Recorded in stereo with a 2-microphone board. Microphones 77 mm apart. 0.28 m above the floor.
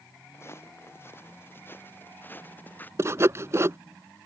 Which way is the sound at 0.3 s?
30° left (ahead or behind).